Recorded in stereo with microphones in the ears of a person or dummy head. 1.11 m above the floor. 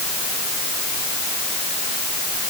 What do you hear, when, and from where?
Only background noise.